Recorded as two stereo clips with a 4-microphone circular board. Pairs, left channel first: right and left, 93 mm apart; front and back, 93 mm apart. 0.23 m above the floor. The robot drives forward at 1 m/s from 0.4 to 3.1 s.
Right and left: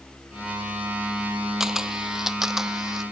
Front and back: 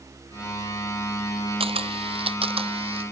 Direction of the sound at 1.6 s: 175° left.